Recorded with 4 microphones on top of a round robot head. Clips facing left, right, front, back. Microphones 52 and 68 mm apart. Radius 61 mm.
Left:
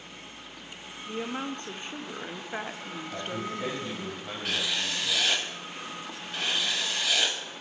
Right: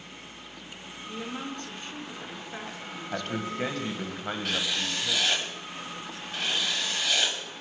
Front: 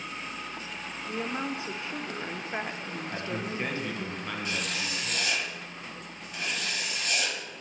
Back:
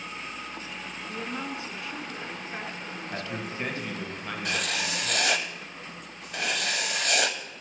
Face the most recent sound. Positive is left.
turn(degrees=180)